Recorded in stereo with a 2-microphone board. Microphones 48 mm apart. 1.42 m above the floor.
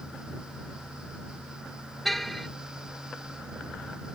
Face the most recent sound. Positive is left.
turn(degrees=5)  # may be behind; listen again after turning